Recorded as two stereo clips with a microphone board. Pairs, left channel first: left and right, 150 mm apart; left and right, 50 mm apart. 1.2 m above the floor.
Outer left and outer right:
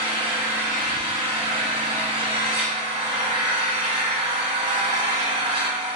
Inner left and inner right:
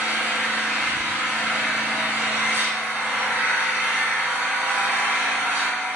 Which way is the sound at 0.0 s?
45° right (ahead or behind).